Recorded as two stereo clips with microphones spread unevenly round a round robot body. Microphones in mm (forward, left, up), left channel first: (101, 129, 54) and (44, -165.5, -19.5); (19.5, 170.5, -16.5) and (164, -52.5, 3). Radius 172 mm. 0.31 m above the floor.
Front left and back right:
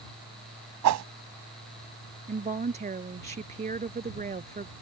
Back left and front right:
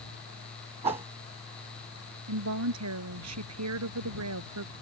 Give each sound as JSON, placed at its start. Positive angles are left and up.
{"t": 0.8, "sound": "a whoosh", "azimuth_deg": -130}
{"t": 2.3, "sound": "a woman speaking", "azimuth_deg": -35}